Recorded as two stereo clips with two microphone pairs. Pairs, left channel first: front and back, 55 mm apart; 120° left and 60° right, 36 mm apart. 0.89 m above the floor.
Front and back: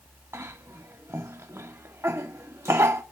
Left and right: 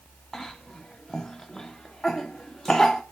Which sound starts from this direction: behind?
A cough, at 0.3 s.